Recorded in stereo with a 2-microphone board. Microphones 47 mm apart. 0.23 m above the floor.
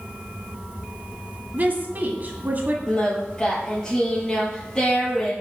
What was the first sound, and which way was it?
A woman speaking, 40° right (ahead or behind).